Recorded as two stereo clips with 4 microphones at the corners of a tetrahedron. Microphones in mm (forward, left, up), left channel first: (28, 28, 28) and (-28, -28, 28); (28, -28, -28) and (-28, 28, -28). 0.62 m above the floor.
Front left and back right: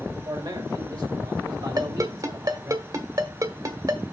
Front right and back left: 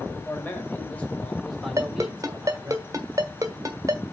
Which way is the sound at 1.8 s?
175° right.